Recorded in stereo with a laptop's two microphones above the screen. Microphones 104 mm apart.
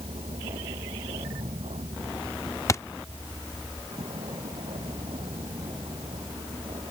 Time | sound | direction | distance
0.0 | a vehicle | 75° right (ahead or behind) | ?
2.7 | a thud | 30° left (ahead or behind) | ?